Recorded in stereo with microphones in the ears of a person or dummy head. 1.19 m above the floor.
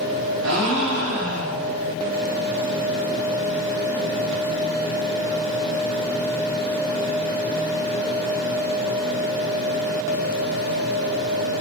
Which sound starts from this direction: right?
A gasp, at 0.4 s.